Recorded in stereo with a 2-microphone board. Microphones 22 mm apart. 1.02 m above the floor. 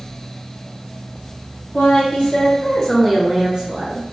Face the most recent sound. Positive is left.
turn(degrees=-55)  # may be behind; listen again after turning